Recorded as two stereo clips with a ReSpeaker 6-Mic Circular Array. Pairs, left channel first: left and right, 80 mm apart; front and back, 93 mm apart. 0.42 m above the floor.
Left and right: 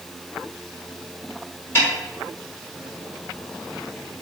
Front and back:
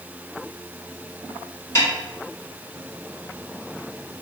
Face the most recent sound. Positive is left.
turn(degrees=40)